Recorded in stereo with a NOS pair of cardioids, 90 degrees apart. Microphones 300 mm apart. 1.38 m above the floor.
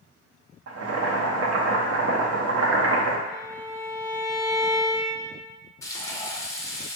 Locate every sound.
0.7 s boiling: 55° right, 0.9 m
3.3 s a violin: 5° right, 1.4 m
5.8 s frying: 10° left, 0.7 m